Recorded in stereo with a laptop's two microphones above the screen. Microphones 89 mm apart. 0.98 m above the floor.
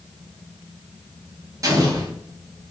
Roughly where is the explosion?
Right.